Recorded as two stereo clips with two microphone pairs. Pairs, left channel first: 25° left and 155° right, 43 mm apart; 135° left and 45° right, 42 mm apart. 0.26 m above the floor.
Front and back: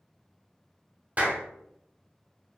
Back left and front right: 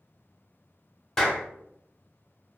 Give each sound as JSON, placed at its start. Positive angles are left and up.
{"t": 1.2, "sound": "a clap", "azimuth_deg": -155, "distance_m": 0.9}